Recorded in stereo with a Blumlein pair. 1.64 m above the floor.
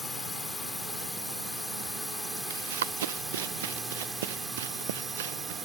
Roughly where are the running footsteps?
Ahead right.